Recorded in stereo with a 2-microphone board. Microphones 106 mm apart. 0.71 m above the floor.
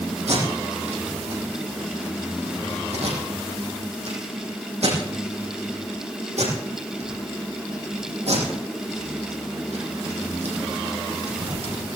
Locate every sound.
0.3 s tape being pulled: 85° right, 9 m